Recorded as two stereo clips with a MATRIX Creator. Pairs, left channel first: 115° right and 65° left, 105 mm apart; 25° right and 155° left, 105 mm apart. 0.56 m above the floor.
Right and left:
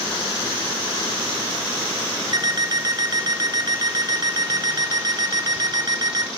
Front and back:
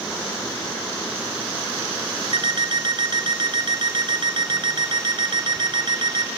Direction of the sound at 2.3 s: 120° left.